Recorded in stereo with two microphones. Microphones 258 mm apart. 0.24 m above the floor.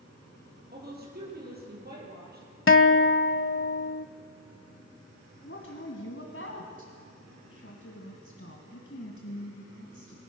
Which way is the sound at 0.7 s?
35° right (ahead or behind).